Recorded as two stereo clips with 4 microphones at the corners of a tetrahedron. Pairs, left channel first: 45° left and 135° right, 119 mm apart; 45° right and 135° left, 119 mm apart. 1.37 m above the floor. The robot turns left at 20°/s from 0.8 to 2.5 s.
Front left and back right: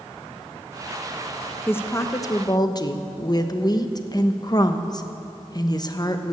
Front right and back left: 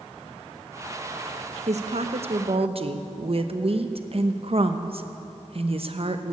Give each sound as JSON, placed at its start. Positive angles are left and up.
{"t": 1.7, "sound": "a woman speaking", "azimuth_deg": 115, "distance_m": 0.9}